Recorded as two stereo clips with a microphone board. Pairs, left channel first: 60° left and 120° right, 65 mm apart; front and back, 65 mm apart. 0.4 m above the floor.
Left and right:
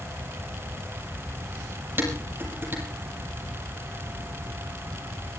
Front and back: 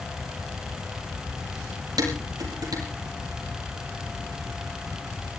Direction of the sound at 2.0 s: 175° right.